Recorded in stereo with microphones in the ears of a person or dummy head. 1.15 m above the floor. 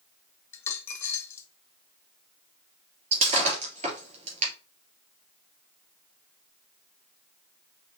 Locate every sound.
0.5 s a dropped coin: 20° left (ahead or behind), 1.1 m
3.1 s breaking glass: 40° right (ahead or behind), 3 m